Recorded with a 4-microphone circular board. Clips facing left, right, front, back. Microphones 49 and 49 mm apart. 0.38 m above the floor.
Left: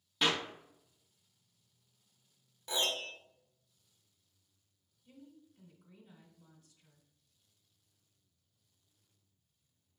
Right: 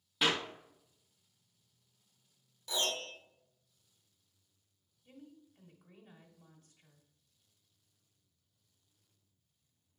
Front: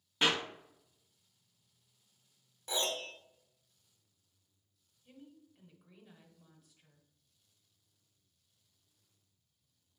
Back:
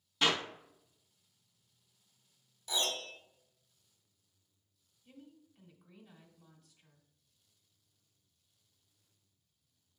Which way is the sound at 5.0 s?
85° right.